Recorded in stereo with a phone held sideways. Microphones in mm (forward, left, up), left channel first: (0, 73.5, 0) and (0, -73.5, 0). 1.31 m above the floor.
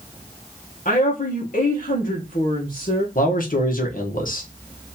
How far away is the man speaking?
About 1.3 m.